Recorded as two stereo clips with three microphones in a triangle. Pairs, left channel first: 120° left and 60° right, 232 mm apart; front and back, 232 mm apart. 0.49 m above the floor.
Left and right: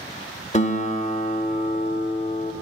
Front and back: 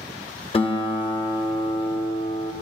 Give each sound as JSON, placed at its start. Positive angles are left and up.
{"t": 0.5, "sound": "a guitar", "azimuth_deg": 60, "distance_m": 0.5}